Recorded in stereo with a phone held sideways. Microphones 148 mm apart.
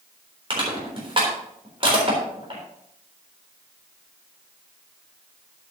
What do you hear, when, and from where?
0.5 s crushing: 35° right (ahead or behind), 3.5 m